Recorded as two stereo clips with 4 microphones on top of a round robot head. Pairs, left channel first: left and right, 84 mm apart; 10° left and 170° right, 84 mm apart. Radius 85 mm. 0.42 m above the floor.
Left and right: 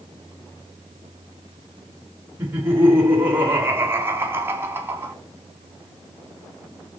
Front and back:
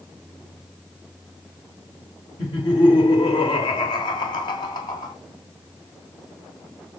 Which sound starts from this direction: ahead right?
Laughter, at 2.4 s.